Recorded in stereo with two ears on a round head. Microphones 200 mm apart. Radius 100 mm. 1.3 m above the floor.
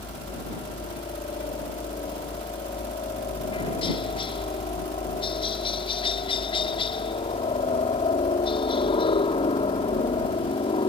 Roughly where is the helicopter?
Left.